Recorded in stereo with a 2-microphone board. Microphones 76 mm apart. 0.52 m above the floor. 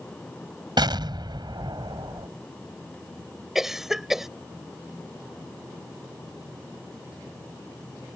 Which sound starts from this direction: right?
An explosion, at 0.8 s.